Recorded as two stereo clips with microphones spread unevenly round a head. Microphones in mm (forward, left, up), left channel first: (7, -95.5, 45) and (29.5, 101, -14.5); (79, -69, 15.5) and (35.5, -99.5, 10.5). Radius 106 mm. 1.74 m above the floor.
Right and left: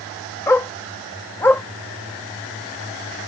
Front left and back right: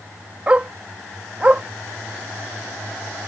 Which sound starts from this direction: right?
A dog barking, at 0.5 s.